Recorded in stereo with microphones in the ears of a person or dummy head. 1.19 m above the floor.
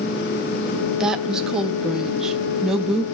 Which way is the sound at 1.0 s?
5° right (ahead or behind).